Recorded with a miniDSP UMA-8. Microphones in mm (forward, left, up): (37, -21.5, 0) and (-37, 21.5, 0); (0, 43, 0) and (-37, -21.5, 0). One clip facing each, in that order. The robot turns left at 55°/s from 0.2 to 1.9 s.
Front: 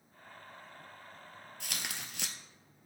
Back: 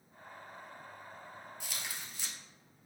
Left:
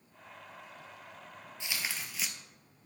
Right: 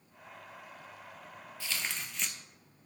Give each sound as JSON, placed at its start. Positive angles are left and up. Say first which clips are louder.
{"t": 1.6, "sound": "tearing paper", "louder": "front 4 dB, even", "azimuth_deg": -5, "distance_m": 0.9}